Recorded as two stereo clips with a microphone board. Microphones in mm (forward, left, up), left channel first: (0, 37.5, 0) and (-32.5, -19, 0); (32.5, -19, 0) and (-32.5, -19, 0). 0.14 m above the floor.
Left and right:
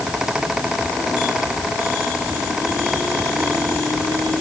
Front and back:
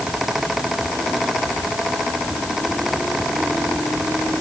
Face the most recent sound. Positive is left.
No sound to turn to.